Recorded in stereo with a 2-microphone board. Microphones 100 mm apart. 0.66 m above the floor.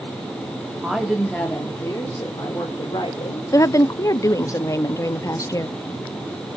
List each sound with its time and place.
0.8 s a woman speaking: 10° right (ahead or behind), 1.7 m; by 3.4 s 50° left (ahead or behind), 3.5 m
3.5 s a woman speaking: 35° left (ahead or behind), 0.5 m